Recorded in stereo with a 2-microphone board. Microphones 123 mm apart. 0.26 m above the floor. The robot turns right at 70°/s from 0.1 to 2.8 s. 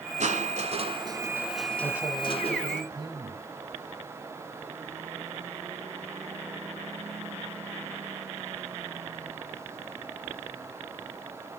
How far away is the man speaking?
About 1.8 m.